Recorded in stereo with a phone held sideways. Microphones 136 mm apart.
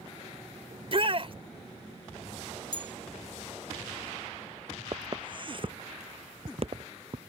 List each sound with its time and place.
0.7 s a shout: 45° right (ahead or behind)
2.7 s a bell: 40° right (ahead or behind)
4.9 s footsteps: 35° right (ahead or behind); by 7.3 s 55° right (ahead or behind)